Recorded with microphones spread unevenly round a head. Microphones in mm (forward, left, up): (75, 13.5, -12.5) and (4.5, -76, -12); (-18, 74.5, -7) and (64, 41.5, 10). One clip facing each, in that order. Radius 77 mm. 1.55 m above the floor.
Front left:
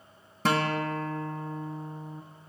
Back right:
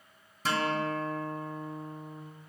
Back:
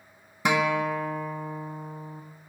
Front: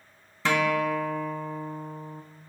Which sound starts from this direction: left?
A guitar, at 0.5 s.